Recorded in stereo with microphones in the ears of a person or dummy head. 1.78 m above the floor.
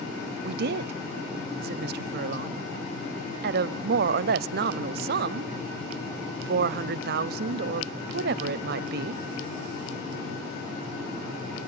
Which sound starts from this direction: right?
A woman speaking, at 0.4 s.